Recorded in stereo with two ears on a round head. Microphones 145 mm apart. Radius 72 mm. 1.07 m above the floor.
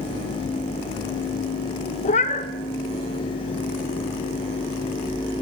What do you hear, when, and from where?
2.0 s a cat meowing: 45° left (ahead or behind), 0.6 m